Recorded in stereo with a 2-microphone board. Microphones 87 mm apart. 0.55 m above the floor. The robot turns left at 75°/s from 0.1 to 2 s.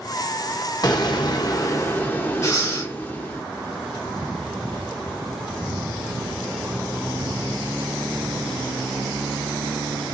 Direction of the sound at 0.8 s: 115° left.